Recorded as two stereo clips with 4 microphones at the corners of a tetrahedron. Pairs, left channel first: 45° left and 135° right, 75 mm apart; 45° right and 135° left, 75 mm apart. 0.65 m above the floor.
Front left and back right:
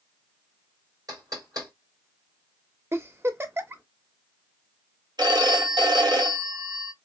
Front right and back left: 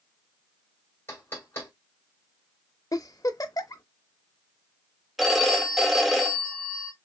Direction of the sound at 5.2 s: 140° right.